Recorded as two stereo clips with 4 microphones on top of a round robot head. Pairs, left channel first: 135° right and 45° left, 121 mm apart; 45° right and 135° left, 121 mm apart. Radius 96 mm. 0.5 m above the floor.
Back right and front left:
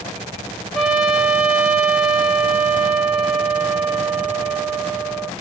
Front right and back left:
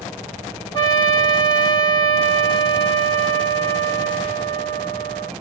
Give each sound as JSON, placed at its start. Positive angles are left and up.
{"t": 0.7, "sound": "a trumpet", "azimuth_deg": -40, "distance_m": 1.6}